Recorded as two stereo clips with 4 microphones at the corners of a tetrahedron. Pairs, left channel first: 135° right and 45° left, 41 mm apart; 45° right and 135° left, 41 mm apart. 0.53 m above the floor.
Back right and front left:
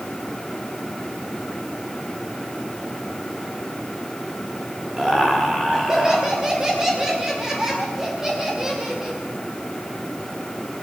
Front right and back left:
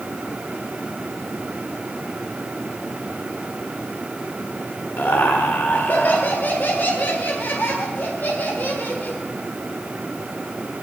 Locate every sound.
5.0 s laughter: 25° right, 1.7 m